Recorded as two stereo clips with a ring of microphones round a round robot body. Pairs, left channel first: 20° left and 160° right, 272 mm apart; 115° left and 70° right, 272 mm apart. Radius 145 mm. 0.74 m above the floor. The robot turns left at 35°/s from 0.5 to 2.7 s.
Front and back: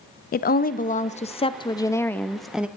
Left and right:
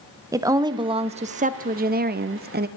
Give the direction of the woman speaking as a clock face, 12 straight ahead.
12 o'clock.